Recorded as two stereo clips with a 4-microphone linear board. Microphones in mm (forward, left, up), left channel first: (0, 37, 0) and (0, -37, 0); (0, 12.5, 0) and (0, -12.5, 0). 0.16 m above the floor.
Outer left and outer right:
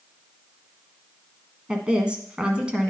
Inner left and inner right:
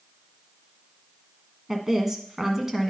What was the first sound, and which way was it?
A woman speaking, 15° right (ahead or behind).